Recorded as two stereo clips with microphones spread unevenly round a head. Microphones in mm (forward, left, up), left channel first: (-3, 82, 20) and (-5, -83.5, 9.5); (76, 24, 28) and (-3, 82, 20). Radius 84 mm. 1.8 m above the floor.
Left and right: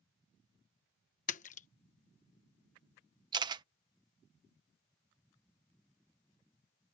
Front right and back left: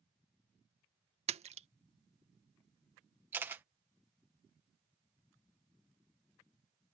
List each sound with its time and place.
1.3 s a splash: 130° left
3.3 s a camera shutter: 145° right